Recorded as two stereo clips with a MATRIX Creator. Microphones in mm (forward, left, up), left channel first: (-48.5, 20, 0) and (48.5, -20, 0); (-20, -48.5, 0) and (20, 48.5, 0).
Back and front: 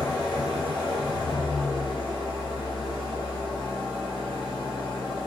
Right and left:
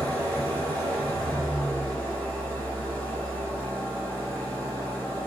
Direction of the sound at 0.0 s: 175° left.